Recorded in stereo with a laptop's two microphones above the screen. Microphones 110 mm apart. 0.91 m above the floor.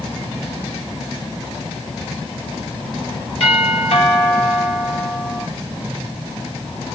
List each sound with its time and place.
3.4 s a doorbell: 55° left (ahead or behind), 6.5 m